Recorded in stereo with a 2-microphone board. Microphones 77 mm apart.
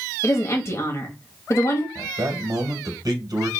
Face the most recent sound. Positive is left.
turn(degrees=-55)  # may be behind; listen again after turning